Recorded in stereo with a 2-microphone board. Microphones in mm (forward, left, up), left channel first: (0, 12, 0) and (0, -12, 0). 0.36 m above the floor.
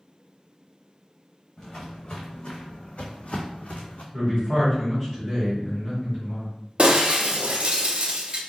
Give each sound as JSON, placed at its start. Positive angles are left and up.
{"t": 1.6, "sound": "footsteps", "side_deg": 30, "distance_m": 1.3}
{"t": 4.1, "sound": "a man speaking", "side_deg": 10, "distance_m": 1.8}
{"t": 6.8, "sound": "breaking glass", "side_deg": -50, "distance_m": 0.6}